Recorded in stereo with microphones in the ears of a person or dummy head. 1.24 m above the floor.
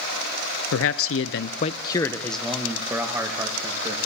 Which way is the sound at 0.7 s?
70° left (ahead or behind).